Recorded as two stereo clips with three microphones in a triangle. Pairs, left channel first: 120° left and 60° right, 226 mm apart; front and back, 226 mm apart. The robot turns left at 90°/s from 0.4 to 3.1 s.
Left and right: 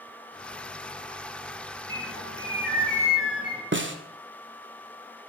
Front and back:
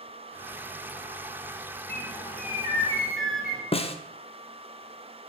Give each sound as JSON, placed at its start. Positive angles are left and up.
{"t": 1.9, "sound": "a bird", "azimuth_deg": -35, "distance_m": 2.0}
{"t": 3.7, "sound": "a snare drum", "azimuth_deg": -60, "distance_m": 0.7}